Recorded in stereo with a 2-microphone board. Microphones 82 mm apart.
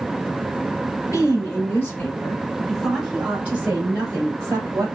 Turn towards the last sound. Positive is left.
turn(degrees=-40)  # may be behind; listen again after turning